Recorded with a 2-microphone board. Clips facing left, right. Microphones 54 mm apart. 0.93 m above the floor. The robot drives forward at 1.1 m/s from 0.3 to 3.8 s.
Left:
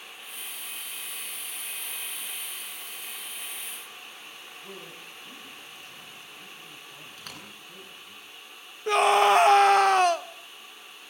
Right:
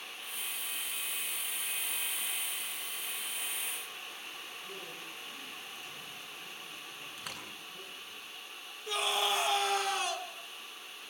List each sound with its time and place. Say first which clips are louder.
4.6 s a man speaking: left 1 dB; 40° left (ahead or behind), 7 m
7.2 s a door slam: even; 10° right (ahead or behind), 9.5 m
8.9 s a scream: left 13 dB; 55° left (ahead or behind), 0.9 m